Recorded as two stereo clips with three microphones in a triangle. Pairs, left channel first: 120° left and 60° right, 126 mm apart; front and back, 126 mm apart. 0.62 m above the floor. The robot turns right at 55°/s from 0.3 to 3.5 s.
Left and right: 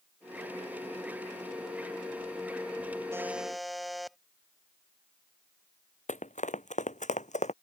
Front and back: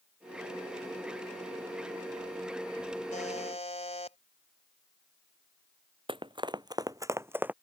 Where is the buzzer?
10° left; by 4.2 s 30° left.